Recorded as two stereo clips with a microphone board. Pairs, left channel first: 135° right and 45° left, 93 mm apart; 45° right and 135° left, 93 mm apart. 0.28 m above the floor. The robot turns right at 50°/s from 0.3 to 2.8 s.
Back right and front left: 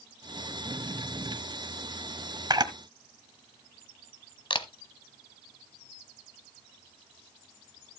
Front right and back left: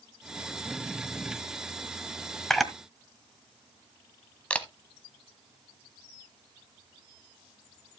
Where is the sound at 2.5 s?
40° left, 1.3 m; by 2.7 s 50° left, 1.3 m.